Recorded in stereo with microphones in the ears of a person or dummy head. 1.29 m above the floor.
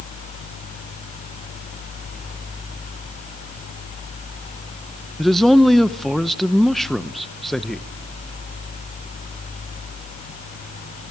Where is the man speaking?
5° left (ahead or behind), 0.7 m.